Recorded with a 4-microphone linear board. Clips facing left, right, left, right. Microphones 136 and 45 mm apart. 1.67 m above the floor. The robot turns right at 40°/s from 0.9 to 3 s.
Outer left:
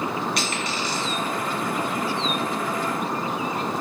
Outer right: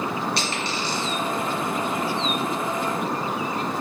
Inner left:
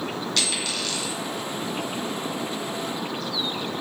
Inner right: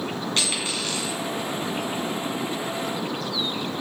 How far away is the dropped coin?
About 2 m.